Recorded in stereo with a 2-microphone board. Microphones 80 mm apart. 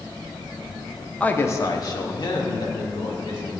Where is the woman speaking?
15° left (ahead or behind), 0.7 m; by 3.6 s 65° left (ahead or behind), 3 m.